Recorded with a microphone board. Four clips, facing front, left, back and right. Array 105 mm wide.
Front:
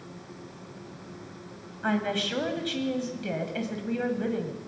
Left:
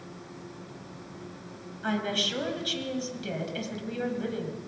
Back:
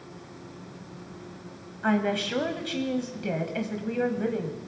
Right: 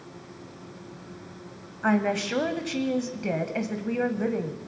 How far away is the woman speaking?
About 1.5 m.